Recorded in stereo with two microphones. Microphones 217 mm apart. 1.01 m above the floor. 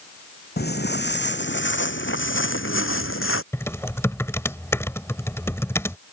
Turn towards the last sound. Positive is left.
turn(degrees=10)  # may be behind; listen again after turning